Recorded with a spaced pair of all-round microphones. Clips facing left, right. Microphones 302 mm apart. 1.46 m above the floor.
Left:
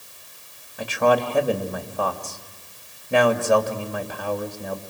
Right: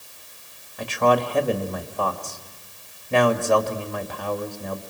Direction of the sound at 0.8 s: 10° left (ahead or behind).